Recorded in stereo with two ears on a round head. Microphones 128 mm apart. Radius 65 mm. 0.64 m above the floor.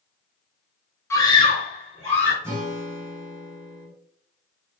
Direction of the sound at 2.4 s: 20° right (ahead or behind).